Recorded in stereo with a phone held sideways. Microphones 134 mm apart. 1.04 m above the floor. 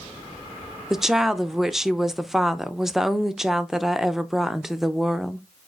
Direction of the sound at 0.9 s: 5° right (ahead or behind).